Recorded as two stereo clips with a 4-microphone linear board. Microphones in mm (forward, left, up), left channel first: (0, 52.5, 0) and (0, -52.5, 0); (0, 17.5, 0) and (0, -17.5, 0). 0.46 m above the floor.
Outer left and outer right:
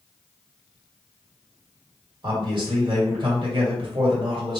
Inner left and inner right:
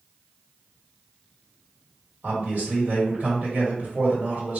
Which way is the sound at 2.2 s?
55° right (ahead or behind).